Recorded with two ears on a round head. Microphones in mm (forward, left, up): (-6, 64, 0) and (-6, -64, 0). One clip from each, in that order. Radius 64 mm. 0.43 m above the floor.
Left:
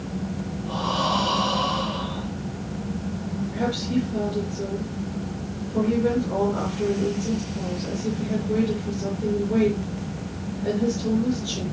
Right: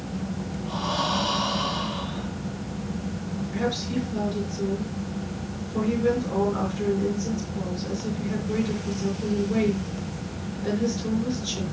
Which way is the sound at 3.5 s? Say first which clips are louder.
Left 1 dB; 70° right (ahead or behind).